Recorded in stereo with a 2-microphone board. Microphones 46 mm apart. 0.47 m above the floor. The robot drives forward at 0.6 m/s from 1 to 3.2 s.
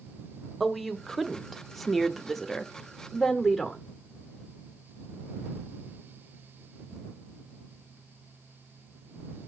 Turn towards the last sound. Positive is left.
turn(degrees=0)  # may be behind; listen again after turning